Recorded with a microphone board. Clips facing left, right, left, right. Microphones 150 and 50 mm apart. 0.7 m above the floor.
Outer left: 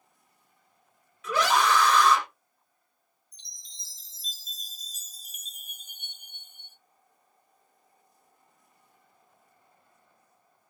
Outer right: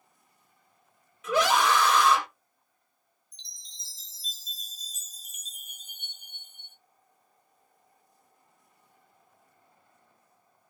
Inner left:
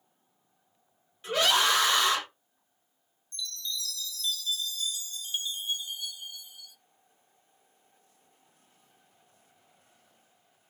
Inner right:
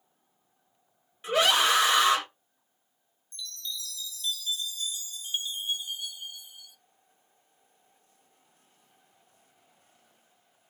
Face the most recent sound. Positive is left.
turn(degrees=-20)  # may be behind; listen again after turning